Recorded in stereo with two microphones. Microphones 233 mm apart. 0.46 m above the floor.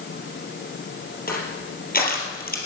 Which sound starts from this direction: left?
Crushing, at 1.3 s.